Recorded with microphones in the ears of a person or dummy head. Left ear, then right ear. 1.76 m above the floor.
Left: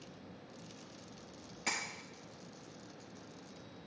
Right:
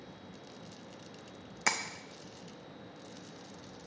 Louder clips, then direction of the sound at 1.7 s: Right 6 dB; 45° right (ahead or behind).